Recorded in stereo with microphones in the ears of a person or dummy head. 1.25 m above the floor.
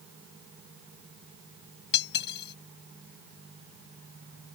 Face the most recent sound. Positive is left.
turn(degrees=60)  # may be behind; listen again after turning